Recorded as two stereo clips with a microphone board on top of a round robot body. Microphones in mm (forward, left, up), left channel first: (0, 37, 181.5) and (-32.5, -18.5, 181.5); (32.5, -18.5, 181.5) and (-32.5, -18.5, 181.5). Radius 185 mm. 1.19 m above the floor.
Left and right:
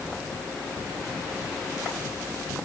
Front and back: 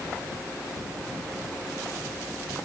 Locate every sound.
Only background noise.